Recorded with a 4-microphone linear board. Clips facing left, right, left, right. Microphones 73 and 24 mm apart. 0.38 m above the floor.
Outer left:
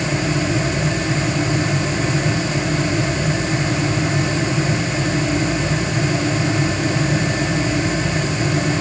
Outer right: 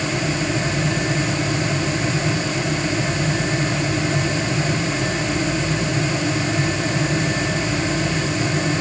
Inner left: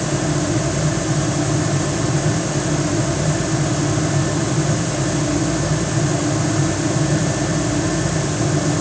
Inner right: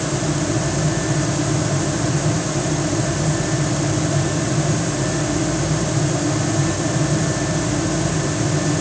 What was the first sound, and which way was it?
Only background noise.